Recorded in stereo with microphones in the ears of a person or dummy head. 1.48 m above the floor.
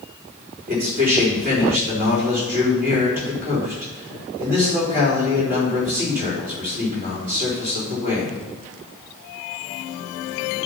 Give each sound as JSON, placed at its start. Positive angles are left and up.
{"t": 0.7, "sound": "a man speaking", "side_deg": -45, "distance_m": 4.5}